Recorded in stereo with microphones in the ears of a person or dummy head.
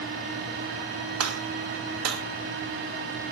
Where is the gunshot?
85° right, 1.0 m.